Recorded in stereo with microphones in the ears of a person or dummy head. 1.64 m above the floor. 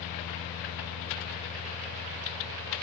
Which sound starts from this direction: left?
A fan, at 0.0 s.